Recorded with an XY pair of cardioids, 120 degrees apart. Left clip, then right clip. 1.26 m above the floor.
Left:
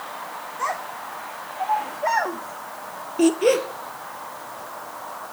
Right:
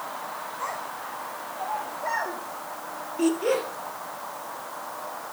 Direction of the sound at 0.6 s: 65° left.